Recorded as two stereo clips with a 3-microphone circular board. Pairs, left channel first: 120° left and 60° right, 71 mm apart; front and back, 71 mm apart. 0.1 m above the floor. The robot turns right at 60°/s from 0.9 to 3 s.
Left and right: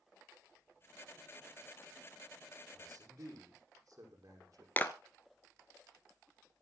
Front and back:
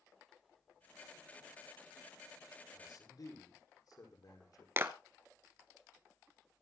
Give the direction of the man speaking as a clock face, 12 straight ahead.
1 o'clock.